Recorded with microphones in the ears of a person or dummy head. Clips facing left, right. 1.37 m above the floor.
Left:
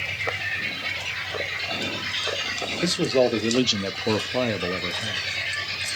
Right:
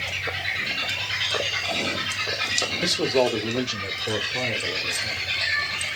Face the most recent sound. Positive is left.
turn(degrees=65)  # may be behind; listen again after turning